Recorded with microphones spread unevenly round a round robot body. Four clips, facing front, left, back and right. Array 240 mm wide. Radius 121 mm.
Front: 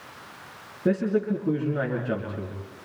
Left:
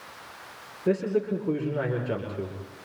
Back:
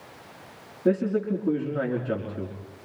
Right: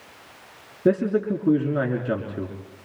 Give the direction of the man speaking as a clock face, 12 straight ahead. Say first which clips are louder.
Right 4 dB, even; 3 o'clock.